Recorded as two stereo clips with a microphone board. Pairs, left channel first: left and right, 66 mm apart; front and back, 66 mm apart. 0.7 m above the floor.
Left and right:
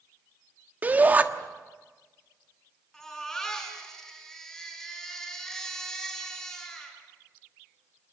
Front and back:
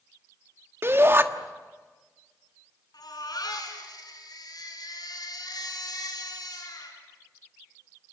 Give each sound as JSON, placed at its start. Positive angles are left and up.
{"t": 0.8, "sound": "a shout", "azimuth_deg": -145, "distance_m": 1.4}
{"t": 2.9, "sound": "a baby crying", "azimuth_deg": 10, "distance_m": 6.0}